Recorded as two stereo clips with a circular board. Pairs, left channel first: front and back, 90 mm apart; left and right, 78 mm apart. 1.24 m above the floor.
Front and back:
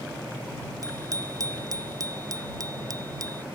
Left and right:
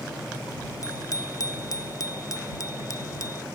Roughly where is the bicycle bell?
Behind left.